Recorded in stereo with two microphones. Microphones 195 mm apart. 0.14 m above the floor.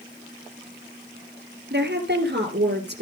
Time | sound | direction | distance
1.7 | a woman speaking | 60° right (ahead or behind) | 2.5 m